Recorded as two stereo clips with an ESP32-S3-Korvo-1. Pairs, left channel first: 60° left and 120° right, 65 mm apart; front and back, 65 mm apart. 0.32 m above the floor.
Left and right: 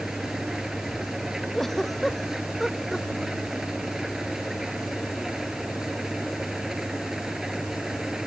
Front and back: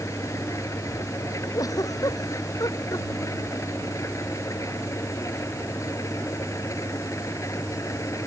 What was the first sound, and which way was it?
An engine running, 35° right.